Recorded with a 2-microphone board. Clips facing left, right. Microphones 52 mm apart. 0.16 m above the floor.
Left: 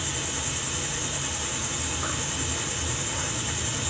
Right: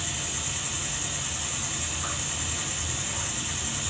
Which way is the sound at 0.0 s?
60° left (ahead or behind).